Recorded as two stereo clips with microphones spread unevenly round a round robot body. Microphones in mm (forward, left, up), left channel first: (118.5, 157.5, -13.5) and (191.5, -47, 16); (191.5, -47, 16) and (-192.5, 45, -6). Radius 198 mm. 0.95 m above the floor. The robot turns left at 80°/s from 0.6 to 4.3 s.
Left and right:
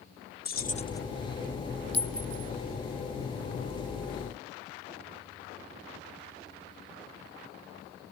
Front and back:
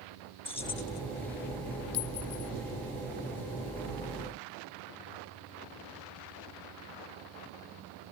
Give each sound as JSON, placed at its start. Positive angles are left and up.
{"t": 0.5, "sound": "keys jangling", "azimuth_deg": 65}
{"t": 1.9, "sound": "a clink", "azimuth_deg": -5}